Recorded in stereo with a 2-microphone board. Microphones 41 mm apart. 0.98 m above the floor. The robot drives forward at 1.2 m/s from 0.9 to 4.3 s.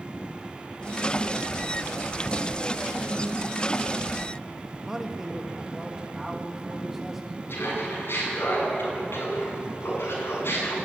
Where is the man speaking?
10° right (ahead or behind), 1.4 m.